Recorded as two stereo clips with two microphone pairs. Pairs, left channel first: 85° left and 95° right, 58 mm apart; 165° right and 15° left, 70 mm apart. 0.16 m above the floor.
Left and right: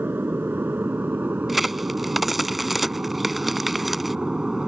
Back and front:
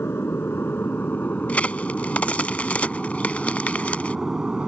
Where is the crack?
Straight behind.